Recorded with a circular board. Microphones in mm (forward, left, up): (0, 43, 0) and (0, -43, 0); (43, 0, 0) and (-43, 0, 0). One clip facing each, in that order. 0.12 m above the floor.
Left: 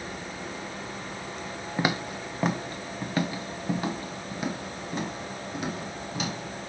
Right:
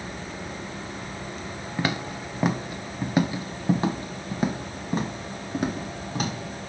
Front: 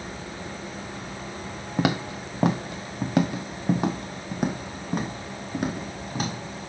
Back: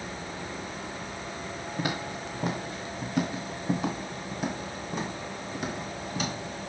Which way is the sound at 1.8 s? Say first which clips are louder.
Even, front 8 dB; 15° left.